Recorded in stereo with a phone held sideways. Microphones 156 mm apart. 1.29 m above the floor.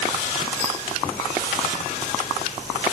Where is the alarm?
No alarm in this recording.